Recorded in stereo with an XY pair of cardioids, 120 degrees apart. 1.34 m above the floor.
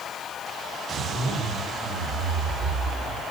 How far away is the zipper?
About 3.5 m.